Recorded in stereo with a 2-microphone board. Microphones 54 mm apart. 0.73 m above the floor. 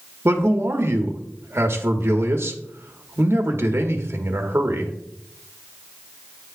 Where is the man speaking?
50° right (ahead or behind), 1.1 m.